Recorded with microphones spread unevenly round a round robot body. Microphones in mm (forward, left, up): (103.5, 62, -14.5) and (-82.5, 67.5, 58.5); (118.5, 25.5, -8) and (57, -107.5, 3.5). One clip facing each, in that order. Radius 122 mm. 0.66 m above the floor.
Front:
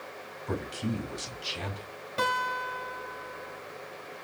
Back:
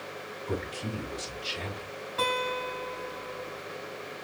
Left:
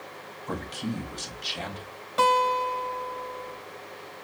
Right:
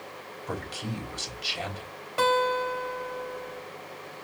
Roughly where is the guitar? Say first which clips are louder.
Back 3 dB, left 1 dB; ahead right.